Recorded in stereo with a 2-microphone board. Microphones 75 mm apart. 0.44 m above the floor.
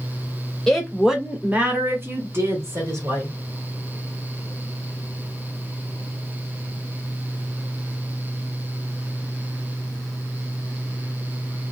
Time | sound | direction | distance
0.7 | a woman speaking | 5° left (ahead or behind) | 1.0 m